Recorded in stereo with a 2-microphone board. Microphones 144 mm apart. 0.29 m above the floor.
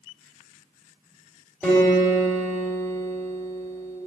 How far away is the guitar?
About 1.6 m.